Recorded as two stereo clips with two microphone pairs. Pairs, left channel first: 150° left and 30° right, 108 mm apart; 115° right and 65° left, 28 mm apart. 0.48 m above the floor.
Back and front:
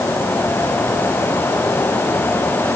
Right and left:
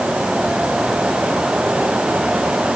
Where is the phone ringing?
No phone ringing in this recording.